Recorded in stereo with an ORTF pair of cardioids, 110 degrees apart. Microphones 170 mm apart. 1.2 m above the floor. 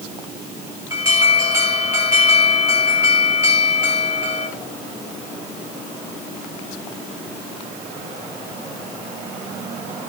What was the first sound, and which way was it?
An alarm, 15° right.